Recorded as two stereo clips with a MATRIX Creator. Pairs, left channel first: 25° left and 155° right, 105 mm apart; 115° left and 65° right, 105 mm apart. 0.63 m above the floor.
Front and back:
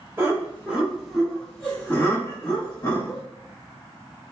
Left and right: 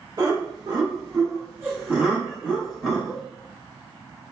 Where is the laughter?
100° right, 1.3 m; by 3.2 s 30° left, 1.3 m.